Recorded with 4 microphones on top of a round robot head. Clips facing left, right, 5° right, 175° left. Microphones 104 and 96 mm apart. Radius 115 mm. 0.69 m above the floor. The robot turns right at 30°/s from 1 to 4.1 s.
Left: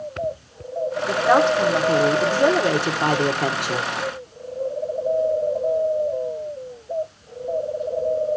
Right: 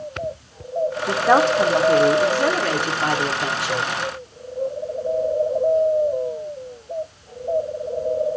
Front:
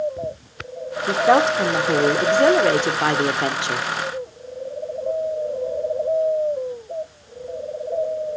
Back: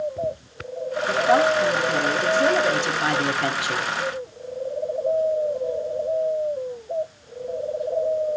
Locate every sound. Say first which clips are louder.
1.1 s a woman speaking: even, front 2 dB; 20° right, 1.9 m; by 3.9 s 65° left, 1.9 m